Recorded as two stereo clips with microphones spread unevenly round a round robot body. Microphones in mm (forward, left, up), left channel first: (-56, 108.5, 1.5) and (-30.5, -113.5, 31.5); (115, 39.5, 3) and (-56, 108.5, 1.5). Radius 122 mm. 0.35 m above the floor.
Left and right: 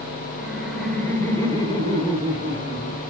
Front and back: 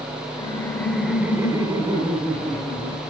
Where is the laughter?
5° left, 0.9 m; by 3.0 s 140° left, 1.4 m.